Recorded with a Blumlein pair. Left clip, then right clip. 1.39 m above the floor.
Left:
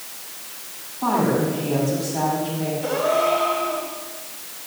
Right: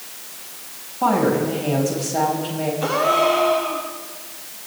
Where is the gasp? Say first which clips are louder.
Right 3 dB; 45° right, 3 m.